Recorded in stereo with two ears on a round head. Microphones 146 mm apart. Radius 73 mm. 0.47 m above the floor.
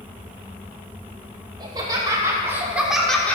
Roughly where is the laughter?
Right.